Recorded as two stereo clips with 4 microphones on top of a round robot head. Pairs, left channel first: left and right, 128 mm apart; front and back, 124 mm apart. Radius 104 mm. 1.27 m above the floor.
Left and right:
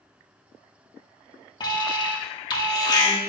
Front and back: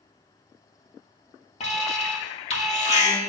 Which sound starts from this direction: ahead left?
An alarm, at 1.6 s.